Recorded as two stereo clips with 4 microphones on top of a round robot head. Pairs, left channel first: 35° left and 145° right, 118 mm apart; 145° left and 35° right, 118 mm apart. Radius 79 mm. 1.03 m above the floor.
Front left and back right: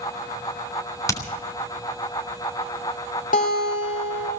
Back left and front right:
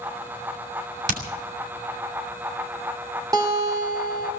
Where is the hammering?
30° right, 3.5 m.